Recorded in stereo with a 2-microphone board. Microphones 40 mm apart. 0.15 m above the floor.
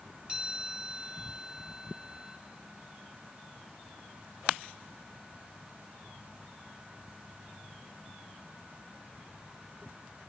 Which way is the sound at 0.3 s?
25° right (ahead or behind).